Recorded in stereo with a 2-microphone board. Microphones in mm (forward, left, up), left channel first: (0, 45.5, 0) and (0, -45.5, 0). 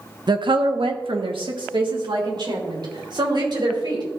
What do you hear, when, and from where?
0.3 s a woman speaking: 50° right (ahead or behind), 0.9 m; by 4.0 s 55° right (ahead or behind), 4.5 m